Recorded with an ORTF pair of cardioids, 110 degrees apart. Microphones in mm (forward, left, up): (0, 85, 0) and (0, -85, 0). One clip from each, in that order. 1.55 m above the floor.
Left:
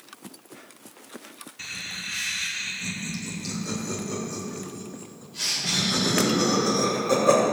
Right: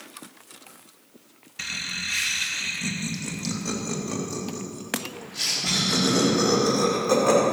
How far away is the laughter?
About 1.9 m.